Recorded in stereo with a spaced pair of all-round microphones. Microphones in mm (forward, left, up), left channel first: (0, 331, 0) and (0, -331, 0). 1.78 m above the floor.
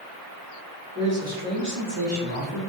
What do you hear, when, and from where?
0.9 s a man speaking: 15° right (ahead or behind), 1.9 m; by 2.6 s 35° right (ahead or behind), 2 m